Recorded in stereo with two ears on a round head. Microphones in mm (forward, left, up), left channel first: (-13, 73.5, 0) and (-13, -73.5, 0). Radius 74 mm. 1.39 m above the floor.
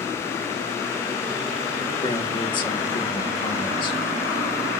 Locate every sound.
2.0 s a man speaking: 30° left (ahead or behind), 1.6 m